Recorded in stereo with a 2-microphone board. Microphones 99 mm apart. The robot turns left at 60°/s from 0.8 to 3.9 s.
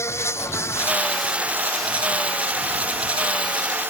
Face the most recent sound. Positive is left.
turn(degrees=-160)